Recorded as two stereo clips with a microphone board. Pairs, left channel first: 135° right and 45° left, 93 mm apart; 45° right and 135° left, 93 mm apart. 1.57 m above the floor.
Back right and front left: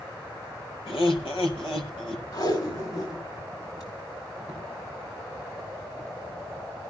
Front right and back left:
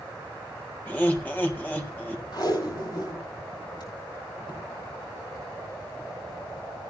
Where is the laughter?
120° right, 3 m.